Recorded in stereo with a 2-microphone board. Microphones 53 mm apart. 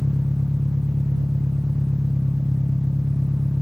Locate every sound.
0.0 s an engine running: 75° right (ahead or behind)